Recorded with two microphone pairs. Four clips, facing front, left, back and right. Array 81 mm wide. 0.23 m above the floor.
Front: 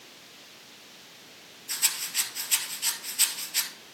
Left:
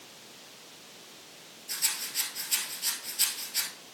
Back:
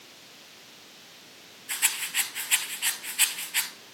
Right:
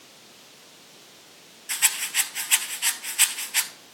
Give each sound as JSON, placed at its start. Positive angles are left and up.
{"t": 1.7, "sound": "a rattle", "azimuth_deg": -120, "distance_m": 0.7}